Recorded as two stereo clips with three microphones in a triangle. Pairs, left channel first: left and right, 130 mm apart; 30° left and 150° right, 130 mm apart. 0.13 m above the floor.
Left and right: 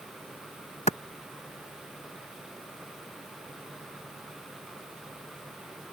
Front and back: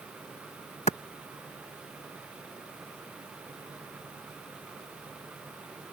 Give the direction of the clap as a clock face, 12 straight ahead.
10 o'clock.